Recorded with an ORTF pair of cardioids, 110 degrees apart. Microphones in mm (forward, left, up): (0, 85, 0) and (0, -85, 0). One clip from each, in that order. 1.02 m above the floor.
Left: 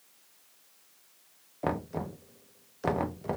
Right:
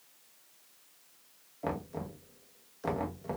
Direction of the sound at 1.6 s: 25° left.